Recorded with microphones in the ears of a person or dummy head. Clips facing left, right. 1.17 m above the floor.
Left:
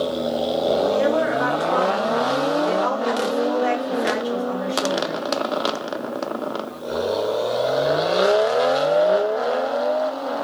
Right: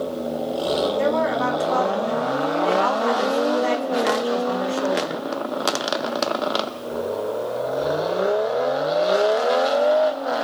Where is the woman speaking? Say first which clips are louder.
Left 1 dB; 55° right (ahead or behind), 1.8 m.